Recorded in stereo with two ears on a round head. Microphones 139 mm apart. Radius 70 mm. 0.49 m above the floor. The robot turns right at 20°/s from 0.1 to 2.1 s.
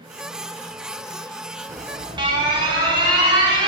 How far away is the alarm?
About 2.5 m.